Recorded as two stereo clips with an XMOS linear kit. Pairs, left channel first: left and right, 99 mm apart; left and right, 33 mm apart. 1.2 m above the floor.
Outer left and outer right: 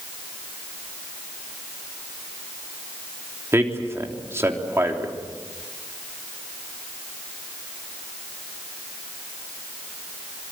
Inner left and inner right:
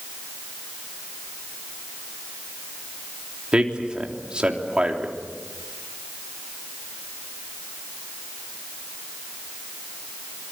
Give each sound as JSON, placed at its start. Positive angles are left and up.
{"t": 3.5, "sound": "a man speaking", "side_deg": -25, "distance_m": 3.5}